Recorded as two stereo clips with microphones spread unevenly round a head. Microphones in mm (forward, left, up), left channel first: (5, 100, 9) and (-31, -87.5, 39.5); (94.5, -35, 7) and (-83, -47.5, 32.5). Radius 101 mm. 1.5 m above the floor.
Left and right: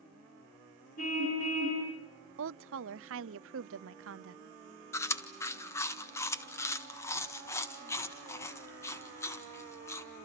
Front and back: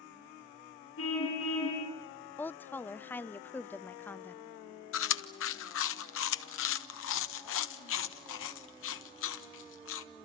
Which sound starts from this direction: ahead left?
A car horn, at 1.0 s.